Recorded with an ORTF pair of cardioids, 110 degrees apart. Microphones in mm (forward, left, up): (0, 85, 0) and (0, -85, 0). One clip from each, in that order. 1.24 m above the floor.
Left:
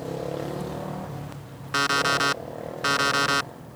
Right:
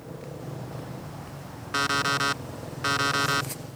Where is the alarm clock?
10° left.